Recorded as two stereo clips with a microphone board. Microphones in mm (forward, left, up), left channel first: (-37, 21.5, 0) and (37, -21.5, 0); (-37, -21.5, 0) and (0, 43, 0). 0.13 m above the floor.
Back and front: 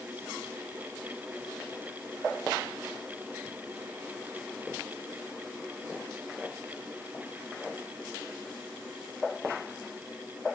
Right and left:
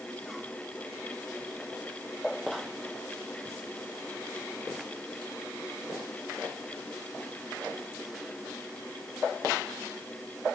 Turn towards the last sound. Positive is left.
No sound to turn to.